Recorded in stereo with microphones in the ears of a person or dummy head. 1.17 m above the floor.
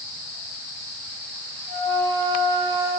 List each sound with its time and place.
1.7 s a flute: 40° right (ahead or behind), 4.5 m